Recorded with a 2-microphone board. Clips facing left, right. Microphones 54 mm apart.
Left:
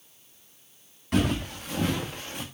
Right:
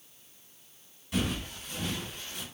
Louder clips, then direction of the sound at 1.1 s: Left 6 dB; 55° left (ahead or behind).